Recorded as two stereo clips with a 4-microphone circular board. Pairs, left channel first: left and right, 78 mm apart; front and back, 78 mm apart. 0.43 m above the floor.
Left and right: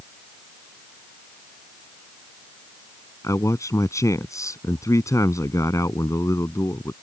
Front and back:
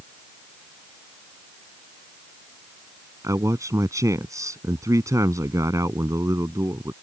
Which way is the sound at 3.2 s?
135° left.